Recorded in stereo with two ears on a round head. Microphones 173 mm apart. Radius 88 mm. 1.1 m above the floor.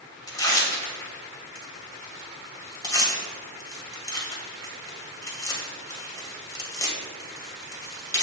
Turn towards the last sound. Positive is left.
turn(degrees=20)  # may be behind; listen again after turning